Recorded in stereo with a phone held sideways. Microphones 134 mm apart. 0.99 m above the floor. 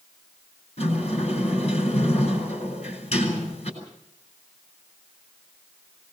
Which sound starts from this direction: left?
A sliding door, at 0.8 s.